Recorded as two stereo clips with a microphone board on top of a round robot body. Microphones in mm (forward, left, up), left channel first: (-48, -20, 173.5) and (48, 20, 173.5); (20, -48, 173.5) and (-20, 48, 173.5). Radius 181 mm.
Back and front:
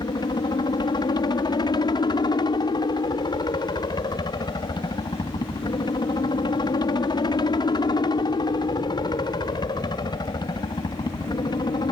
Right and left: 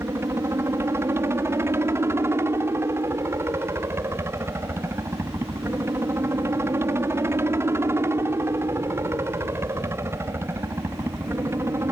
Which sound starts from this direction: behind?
A helicopter, at 0.0 s.